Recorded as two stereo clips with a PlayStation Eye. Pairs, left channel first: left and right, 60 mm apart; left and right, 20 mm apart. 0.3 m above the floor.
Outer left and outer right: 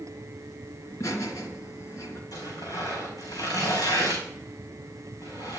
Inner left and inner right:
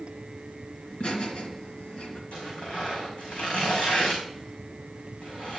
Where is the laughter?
50° left (ahead or behind), 3 m.